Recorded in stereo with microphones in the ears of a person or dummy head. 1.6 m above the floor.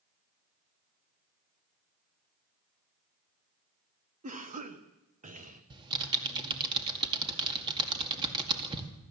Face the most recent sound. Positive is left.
turn(degrees=-25)  # may be behind; listen again after turning